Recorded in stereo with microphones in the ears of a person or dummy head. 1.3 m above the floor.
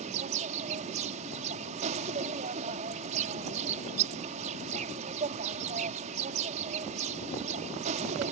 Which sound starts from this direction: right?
An insect, at 0.0 s.